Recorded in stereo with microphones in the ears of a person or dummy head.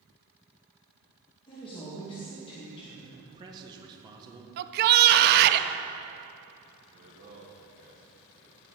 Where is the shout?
55° right (ahead or behind), 0.6 m.